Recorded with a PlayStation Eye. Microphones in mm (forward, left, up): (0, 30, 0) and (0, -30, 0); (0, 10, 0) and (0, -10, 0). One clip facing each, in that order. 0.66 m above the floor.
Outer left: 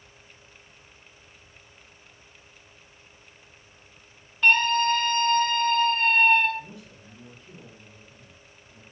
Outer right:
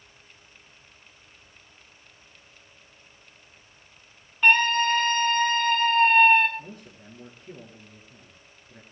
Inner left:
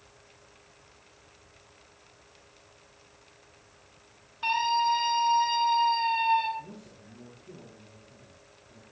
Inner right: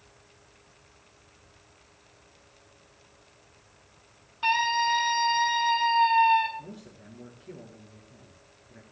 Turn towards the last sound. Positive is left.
turn(degrees=-35)  # may be behind; listen again after turning